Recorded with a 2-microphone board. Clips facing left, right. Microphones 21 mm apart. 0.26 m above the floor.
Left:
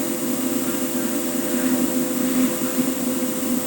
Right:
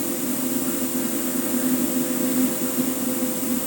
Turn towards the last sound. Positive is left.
No sound to turn to.